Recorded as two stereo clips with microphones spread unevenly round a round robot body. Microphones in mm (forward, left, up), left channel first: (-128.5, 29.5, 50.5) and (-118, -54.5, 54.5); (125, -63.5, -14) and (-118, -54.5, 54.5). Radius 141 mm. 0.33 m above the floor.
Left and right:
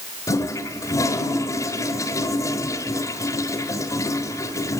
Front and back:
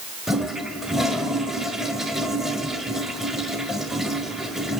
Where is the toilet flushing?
70° left, 1.1 m.